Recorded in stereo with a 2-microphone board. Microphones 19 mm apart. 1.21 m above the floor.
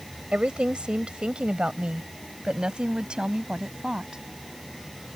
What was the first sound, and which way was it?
A woman speaking, 85° right.